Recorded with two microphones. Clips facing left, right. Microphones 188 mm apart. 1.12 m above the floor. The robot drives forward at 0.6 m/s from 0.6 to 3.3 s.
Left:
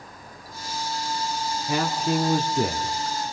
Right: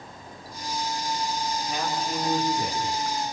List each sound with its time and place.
1.7 s a man speaking: 80° left, 2 m; by 2.9 s 60° left (ahead or behind), 2.5 m